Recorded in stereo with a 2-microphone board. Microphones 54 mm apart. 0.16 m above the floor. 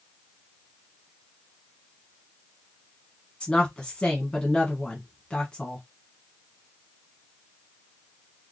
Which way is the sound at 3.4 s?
15° left (ahead or behind).